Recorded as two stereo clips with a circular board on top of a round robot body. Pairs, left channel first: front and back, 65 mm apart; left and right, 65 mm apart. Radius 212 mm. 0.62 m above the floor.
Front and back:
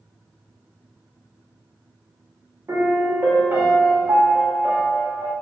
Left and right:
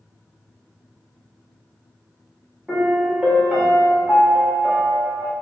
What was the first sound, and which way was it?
A piano, 165° right.